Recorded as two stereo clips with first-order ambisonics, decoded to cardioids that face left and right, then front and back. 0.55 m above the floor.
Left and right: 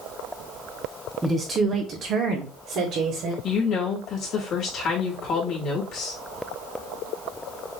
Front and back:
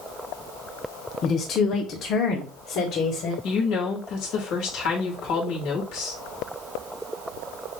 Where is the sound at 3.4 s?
40° left, 2 m.